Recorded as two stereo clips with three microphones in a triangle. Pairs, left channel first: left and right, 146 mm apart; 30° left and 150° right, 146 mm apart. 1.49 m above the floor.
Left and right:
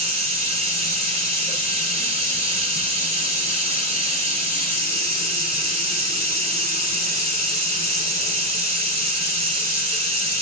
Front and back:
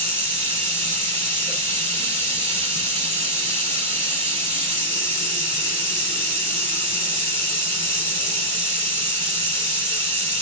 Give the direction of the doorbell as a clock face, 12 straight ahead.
No doorbell in this recording.